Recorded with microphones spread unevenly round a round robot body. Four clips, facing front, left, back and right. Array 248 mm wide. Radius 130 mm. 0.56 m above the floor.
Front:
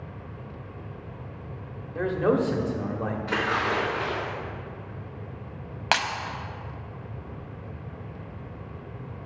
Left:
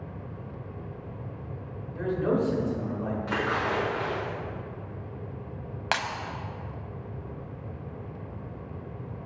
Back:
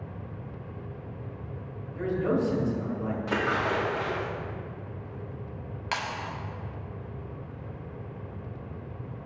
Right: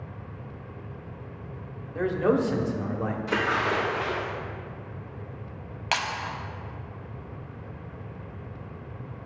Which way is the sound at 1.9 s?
45° right.